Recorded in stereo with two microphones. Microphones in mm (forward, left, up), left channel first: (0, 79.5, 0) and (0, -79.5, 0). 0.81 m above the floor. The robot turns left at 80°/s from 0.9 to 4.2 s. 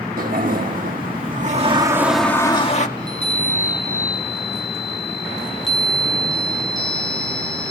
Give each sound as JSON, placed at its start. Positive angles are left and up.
{"t": 0.2, "sound": "a toilet flushing", "azimuth_deg": -80, "distance_m": 1.8}
{"t": 3.0, "sound": "a chime", "azimuth_deg": -85, "distance_m": 9.0}